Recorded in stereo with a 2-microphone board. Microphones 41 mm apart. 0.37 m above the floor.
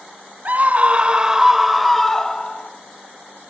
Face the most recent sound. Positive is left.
turn(degrees=20)  # may be behind; listen again after turning